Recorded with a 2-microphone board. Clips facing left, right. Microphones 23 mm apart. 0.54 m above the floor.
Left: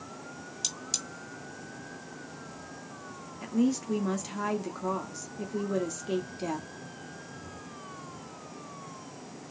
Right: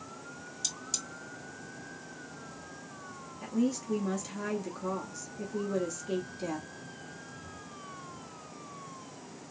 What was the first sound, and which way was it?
Cutlery clinking, 25° left (ahead or behind).